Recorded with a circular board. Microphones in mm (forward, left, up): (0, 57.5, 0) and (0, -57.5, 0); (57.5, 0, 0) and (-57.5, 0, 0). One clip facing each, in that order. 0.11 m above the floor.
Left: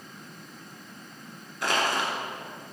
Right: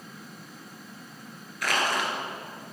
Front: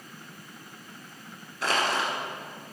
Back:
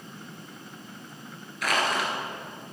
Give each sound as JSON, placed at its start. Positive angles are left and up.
{"t": 1.6, "sound": "crushing", "azimuth_deg": 45, "distance_m": 1.7}